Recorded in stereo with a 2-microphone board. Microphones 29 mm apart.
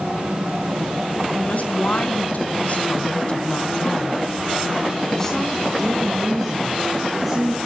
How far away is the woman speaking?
About 2.5 m.